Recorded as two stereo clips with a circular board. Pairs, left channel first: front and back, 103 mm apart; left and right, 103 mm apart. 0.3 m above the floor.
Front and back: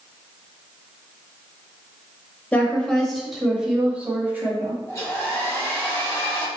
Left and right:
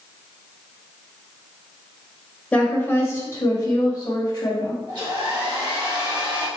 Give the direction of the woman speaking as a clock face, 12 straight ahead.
11 o'clock.